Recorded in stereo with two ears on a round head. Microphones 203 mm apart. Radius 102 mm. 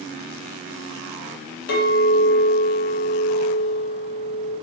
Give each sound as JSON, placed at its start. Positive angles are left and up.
{"t": 1.7, "sound": "a clink", "side_deg": 45, "distance_m": 0.8}